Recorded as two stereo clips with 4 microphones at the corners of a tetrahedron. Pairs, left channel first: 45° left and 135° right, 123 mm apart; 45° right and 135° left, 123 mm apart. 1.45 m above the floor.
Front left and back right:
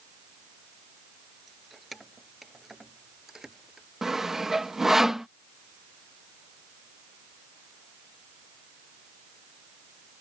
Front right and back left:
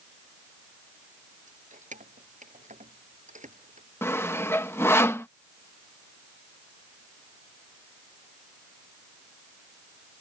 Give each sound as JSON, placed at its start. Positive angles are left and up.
{"t": 1.5, "sound": "keys jangling", "azimuth_deg": 135}
{"t": 4.0, "sound": "sawing", "azimuth_deg": -55}